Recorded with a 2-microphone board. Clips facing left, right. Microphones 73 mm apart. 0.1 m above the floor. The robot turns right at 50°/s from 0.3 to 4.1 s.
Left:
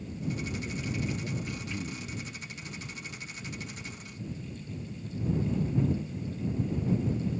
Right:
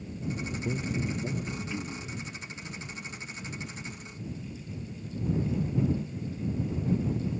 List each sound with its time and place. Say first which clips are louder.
0.6 s a man speaking: right 6 dB; 65° right; by 2.2 s 15° left